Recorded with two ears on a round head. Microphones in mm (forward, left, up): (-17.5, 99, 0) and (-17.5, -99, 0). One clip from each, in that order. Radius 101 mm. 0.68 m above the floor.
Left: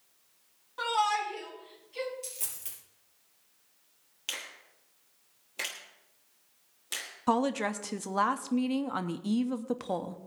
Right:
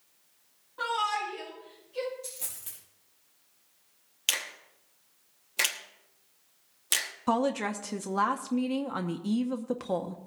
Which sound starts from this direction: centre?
A woman speaking, at 7.3 s.